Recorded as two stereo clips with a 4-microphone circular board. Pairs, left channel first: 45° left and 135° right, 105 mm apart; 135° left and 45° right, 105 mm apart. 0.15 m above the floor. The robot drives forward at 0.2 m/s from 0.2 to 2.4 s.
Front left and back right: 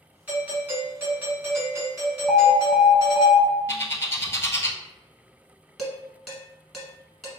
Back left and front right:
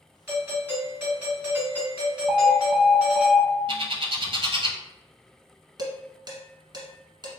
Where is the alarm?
85° right, 1.0 m; by 3.6 s 90° right, 0.9 m.